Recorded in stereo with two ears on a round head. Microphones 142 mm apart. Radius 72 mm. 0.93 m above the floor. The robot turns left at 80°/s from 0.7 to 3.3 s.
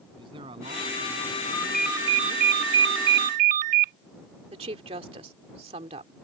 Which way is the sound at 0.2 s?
30° right.